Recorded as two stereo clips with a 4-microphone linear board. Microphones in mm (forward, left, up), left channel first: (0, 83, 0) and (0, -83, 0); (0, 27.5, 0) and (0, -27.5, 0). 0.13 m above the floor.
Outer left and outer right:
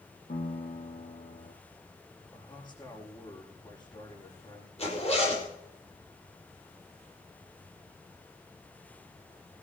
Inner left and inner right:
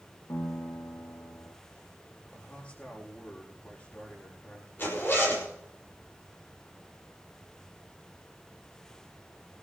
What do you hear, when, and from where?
0.3 s a piano: 60° left (ahead or behind), 1.7 m
2.3 s a man speaking: 25° left (ahead or behind), 7 m
4.8 s a zipper: 40° left (ahead or behind), 5 m